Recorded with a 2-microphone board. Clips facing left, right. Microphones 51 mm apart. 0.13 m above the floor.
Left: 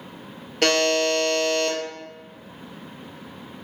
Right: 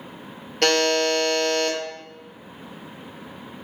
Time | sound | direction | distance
0.6 | a buzzer | centre (ahead or behind) | 0.6 m